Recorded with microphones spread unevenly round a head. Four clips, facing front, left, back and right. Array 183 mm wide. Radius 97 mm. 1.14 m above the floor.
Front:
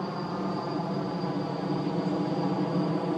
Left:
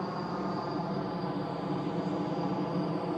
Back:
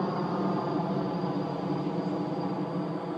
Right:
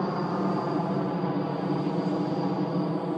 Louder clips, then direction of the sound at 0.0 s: Right 6 dB, back 3 dB; 115° right.